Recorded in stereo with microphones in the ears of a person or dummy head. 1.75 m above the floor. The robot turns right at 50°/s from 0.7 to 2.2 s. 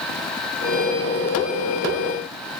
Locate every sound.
Only background noise.